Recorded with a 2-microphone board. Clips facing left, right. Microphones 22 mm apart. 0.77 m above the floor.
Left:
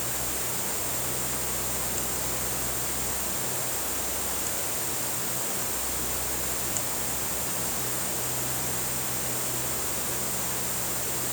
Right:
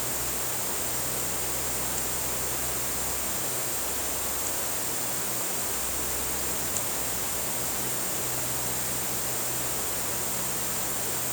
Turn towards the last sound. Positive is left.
No sound to turn to.